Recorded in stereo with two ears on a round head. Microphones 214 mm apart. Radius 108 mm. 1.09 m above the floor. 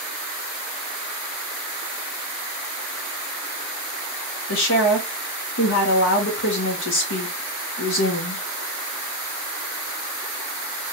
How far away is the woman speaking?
About 0.9 m.